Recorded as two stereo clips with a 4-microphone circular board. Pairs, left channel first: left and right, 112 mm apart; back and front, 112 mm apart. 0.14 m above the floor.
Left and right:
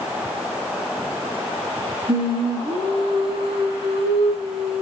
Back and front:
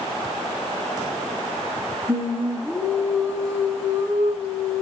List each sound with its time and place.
2.1 s singing: 65° right, 1.3 m